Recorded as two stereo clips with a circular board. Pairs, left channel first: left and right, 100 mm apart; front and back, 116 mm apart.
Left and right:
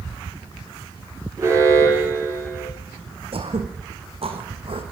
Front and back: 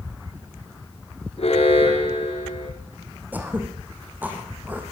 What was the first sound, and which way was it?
An alarm, 30° right.